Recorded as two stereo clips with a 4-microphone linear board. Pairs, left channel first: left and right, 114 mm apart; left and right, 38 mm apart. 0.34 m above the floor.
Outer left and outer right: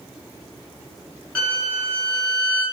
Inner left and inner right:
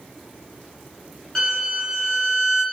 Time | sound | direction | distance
1.4 | a violin | 10° left (ahead or behind) | 1.2 m